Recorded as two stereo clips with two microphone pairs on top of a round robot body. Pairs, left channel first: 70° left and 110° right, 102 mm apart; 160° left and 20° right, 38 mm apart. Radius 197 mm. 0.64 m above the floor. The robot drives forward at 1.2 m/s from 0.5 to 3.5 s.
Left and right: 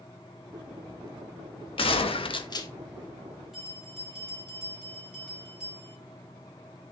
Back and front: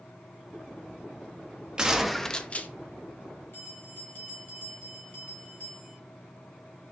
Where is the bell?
170° left, 3.5 m.